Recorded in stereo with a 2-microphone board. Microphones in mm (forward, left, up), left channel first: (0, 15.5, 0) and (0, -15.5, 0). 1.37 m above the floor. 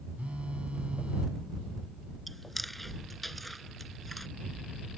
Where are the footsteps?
No footsteps in this recording.